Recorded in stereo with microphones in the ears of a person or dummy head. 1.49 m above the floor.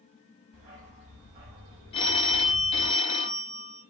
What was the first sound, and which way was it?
A dog barking, 45° right (ahead or behind).